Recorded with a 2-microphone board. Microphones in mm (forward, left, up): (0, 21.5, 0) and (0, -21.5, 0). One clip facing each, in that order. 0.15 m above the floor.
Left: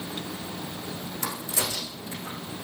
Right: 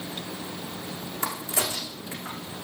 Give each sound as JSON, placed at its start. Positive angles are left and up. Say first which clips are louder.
{"t": 1.2, "sound": "a crack", "louder": "right 2 dB", "side_deg": -25, "distance_m": 4.5}